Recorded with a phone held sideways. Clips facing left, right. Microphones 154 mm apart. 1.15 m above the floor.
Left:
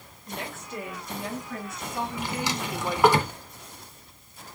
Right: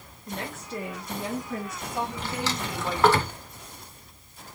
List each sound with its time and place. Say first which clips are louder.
0.3 s a woman speaking: right 2 dB; 40° right (ahead or behind), 1.9 m; by 3.2 s 15° left (ahead or behind), 1.2 m
2.2 s a drawer: left 1 dB; 15° left (ahead or behind), 0.8 m